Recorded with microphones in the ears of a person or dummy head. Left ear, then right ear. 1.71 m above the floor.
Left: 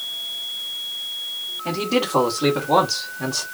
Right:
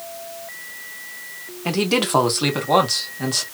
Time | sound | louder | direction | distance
1.6 | a man speaking | right 3 dB | 50° right (ahead or behind) | 0.9 m